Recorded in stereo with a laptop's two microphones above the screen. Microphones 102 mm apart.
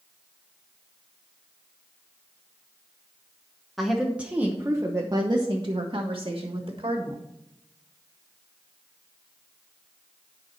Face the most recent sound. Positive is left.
turn(degrees=-60)  # may be behind; listen again after turning